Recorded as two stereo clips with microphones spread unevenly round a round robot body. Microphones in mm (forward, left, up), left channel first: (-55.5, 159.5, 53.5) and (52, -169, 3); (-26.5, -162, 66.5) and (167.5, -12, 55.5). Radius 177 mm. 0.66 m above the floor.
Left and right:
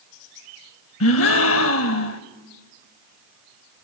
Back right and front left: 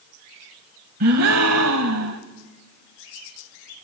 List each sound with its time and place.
1.0 s a gasp: 70° left, 0.7 m